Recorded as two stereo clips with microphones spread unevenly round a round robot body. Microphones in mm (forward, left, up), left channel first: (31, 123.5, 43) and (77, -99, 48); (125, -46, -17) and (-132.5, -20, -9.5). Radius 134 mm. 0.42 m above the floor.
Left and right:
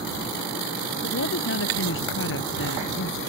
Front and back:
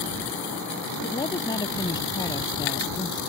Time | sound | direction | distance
1.0 | a woman speaking | 70° left | ?